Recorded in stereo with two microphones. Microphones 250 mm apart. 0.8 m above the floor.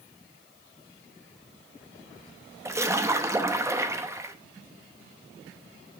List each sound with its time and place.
2.6 s a splash: 10° right (ahead or behind), 0.8 m